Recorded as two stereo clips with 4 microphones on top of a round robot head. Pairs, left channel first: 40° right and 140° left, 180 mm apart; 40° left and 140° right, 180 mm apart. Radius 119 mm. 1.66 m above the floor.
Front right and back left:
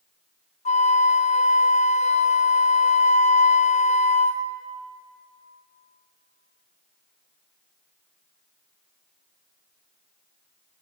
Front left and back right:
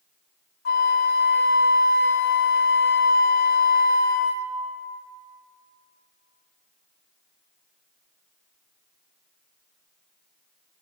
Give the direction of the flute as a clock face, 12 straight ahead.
12 o'clock.